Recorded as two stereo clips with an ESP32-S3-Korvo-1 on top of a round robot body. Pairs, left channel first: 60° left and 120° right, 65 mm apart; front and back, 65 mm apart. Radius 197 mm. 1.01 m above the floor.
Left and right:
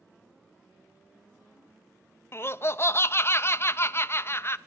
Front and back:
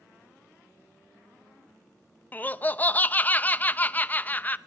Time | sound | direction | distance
2.3 | laughter | 50° left | 0.7 m